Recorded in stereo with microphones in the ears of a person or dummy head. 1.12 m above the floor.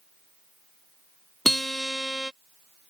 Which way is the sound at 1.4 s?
5° left (ahead or behind).